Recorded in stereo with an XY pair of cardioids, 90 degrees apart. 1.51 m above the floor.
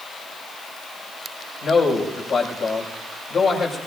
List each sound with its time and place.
1.6 s a man speaking: 70° left, 5.5 m